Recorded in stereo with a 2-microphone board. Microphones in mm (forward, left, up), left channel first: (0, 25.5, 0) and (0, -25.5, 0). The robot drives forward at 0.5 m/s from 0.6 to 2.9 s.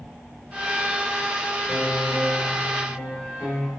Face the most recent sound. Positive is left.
turn(degrees=-25)  # may be behind; listen again after turning